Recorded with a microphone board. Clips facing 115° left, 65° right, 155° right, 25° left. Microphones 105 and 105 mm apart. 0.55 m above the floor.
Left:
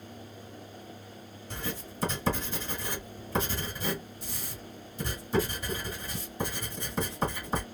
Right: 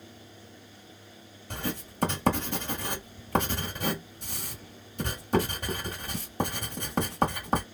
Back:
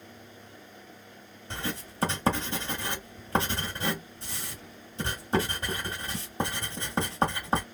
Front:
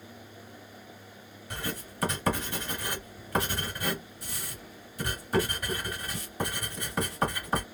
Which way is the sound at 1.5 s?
95° right.